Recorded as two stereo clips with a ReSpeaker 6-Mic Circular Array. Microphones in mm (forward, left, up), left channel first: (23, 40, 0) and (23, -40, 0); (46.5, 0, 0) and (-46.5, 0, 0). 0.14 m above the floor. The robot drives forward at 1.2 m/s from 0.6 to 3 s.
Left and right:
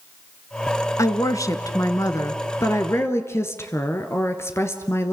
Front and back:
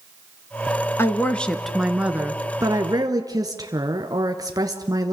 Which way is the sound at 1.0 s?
55° left.